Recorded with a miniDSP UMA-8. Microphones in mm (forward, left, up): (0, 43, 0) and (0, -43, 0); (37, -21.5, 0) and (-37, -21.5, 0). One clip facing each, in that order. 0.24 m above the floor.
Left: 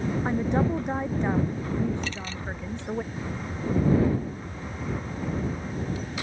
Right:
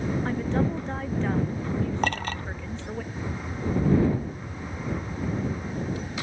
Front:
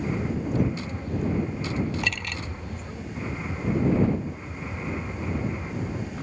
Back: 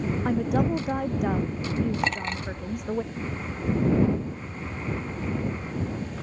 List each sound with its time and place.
0.2 s a woman speaking: 160° left
2.0 s a clink: 120° right